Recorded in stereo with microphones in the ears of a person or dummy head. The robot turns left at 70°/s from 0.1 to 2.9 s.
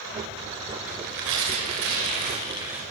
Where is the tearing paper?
40° right, 6.5 m; by 2.8 s 175° right, 6.5 m.